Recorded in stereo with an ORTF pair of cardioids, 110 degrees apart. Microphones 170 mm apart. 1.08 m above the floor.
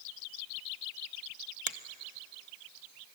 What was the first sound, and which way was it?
A finger snap, 45° right.